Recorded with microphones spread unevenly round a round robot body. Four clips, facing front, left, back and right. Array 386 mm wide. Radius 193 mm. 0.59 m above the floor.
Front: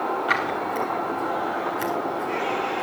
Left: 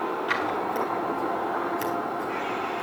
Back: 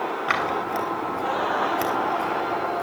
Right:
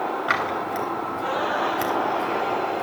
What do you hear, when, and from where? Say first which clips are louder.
0.3 s scissors: right 2 dB, even; 130° right, 6 m